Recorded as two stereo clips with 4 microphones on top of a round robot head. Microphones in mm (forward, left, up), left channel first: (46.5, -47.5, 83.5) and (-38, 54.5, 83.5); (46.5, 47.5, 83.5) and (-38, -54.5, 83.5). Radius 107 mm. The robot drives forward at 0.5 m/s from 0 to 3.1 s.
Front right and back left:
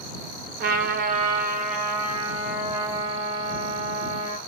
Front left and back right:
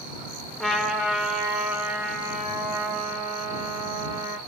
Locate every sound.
0.6 s a trumpet: 140° left, 0.7 m; by 4.4 s 165° left, 1.8 m